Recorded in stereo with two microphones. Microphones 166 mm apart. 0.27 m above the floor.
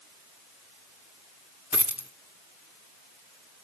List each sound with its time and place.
1.7 s a dropped coin: 10° right (ahead or behind), 1.3 m